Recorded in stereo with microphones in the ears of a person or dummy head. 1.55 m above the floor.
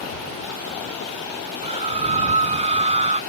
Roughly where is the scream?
Right.